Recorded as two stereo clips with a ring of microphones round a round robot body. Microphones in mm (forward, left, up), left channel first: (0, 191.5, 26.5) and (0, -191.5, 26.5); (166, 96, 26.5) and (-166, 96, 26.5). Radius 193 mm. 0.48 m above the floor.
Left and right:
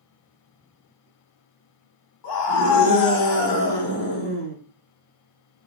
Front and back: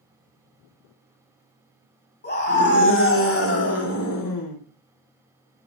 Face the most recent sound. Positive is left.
turn(degrees=30)